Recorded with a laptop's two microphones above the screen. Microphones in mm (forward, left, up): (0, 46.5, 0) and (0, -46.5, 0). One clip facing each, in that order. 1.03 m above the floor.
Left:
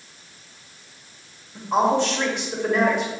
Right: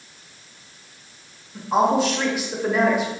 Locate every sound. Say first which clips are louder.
1.6 s a woman speaking: right 1 dB; 5° right (ahead or behind), 1.2 m